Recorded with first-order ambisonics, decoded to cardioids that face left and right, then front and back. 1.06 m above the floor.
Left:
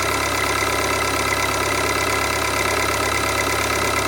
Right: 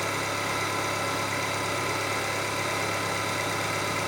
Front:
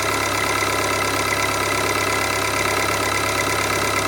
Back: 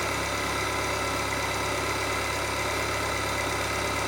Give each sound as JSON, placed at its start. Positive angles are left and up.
{"t": 0.0, "sound": "an engine running", "azimuth_deg": 45, "distance_m": 1.3}